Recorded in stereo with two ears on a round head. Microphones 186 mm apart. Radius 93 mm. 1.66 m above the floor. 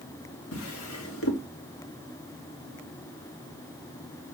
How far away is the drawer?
About 3 m.